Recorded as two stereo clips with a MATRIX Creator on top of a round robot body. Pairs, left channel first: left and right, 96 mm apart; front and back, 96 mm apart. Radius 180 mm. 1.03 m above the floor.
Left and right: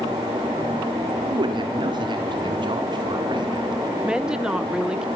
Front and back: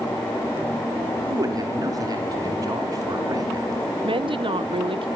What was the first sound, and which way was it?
A man speaking, 130° right.